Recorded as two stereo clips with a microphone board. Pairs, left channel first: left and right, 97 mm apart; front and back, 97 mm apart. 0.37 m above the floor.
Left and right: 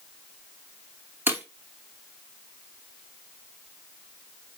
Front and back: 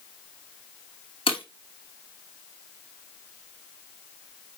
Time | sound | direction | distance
1.3 | breaking glass | 20° right | 2.5 m